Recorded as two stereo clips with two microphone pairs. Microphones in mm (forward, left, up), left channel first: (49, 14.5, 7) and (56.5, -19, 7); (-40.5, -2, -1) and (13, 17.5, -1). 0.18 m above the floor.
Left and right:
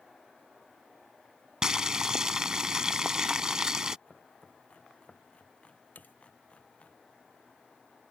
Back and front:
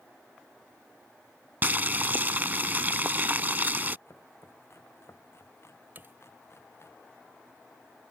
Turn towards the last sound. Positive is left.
turn(degrees=75)